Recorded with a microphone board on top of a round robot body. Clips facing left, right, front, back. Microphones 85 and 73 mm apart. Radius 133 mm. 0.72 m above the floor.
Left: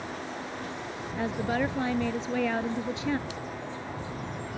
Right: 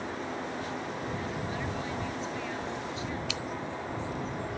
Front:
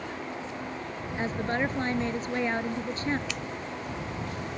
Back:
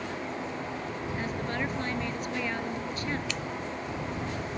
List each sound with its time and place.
1.2 s a woman speaking: 60° left
3.3 s scissors: 90° right